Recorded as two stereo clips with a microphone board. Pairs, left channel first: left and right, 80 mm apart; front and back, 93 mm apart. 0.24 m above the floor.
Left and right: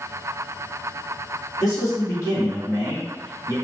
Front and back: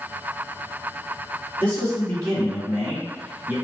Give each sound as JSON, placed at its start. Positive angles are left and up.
{"t": 1.6, "sound": "a man speaking", "azimuth_deg": 75, "distance_m": 1.3}